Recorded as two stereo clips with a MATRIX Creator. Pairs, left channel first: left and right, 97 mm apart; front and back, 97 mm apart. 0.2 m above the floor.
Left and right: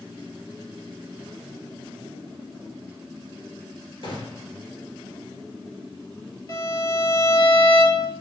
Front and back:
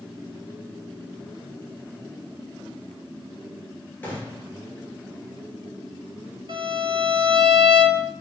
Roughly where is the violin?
Behind left.